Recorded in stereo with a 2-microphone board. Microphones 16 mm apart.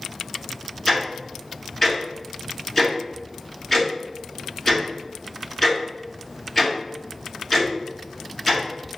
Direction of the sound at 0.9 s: 15° left (ahead or behind).